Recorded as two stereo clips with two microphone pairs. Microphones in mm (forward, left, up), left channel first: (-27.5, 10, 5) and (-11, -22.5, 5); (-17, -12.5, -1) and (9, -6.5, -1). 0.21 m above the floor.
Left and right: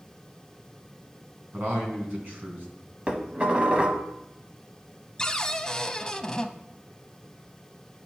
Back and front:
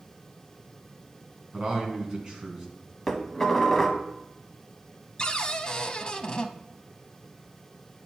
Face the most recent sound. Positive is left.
turn(degrees=170)